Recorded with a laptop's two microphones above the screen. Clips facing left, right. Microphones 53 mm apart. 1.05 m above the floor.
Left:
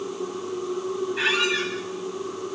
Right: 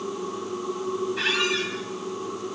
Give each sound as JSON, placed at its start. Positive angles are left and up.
{"t": 0.0, "sound": "a machine running", "side_deg": -65, "distance_m": 9.5}
{"t": 1.2, "sound": "a squeak", "side_deg": 10, "distance_m": 4.0}